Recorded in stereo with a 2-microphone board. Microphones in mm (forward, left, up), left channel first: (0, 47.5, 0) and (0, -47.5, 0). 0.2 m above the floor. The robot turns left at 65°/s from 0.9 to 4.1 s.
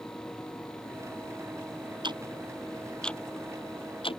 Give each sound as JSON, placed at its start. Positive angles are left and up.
{"t": 2.0, "sound": "ticking", "side_deg": -55}